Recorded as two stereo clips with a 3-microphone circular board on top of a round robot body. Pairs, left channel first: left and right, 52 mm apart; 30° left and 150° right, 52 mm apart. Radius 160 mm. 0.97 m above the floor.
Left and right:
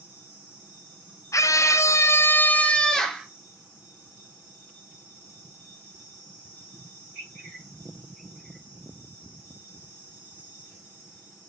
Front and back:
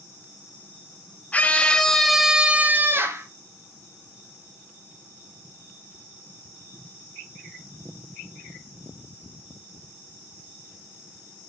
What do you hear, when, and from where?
1.3 s a scream: 90° left, 1.4 m; by 3.3 s straight behind, 1.2 m